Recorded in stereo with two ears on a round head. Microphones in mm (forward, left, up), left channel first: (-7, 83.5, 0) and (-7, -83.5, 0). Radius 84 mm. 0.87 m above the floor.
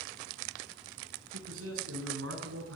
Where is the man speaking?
85° right, 9 m; by 2.8 s 75° right (ahead or behind), 9.5 m.